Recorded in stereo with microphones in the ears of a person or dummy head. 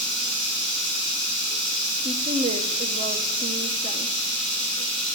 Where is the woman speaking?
35° right (ahead or behind), 1.2 m.